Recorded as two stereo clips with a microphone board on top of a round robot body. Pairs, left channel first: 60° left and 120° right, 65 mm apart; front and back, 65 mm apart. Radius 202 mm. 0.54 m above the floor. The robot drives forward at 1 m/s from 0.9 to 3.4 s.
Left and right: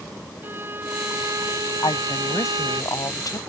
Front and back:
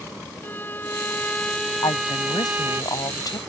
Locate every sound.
0.4 s a violin: 60° right; by 2.8 s 115° right
1.8 s a woman speaking: 20° left; by 3.4 s 30° left